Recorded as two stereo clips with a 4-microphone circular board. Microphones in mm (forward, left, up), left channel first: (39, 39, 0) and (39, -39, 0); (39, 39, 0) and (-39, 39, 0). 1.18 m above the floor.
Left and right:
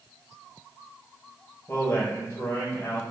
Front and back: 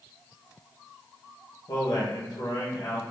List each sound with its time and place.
1.7 s a man speaking: 35° left, 0.8 m